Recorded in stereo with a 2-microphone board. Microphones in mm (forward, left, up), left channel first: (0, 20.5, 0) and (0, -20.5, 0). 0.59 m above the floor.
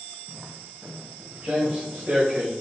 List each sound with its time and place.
0.3 s footsteps: centre (ahead or behind), 2.5 m; by 2.5 s 25° right (ahead or behind), 3.5 m